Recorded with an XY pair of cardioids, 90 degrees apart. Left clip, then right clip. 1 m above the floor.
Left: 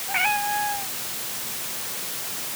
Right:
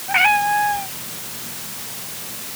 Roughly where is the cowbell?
I don't hear a cowbell.